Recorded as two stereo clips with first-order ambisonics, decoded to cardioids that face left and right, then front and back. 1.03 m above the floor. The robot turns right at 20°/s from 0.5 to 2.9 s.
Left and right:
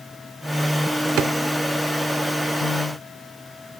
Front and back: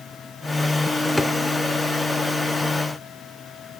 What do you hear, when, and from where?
1.2 s a drawer: 85° right, 0.8 m